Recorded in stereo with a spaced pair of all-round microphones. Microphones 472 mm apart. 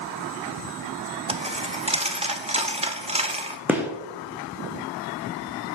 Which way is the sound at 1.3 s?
15° right (ahead or behind).